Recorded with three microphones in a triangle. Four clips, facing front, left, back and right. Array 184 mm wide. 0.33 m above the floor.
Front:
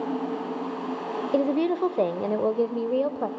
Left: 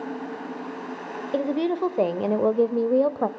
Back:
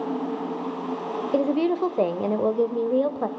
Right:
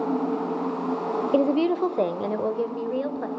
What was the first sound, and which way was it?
A woman speaking, 95° right.